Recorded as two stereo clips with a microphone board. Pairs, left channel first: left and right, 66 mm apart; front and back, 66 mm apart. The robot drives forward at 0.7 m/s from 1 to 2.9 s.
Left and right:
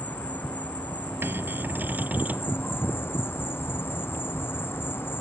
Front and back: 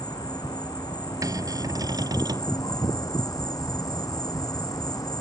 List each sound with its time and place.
0.0 s an insect: 25° left; by 5.2 s 35° left
1.2 s a cupboard door: 145° right; by 2.5 s 155° right